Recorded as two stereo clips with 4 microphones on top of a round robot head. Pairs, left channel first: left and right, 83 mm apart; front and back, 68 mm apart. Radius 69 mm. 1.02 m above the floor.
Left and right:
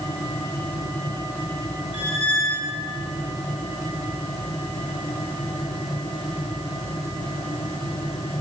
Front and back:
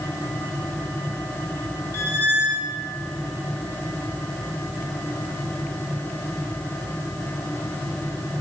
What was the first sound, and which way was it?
A squeak, 50° left.